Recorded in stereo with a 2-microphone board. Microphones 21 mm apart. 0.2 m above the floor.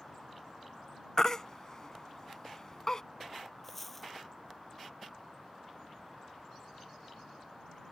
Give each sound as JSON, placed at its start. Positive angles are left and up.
{"t": 1.2, "sound": "a baby crying", "side_deg": 25}
{"t": 3.6, "sound": "a dropped coin", "side_deg": 5}